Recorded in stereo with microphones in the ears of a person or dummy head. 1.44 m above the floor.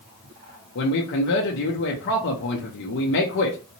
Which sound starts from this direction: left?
A man speaking, at 0.8 s.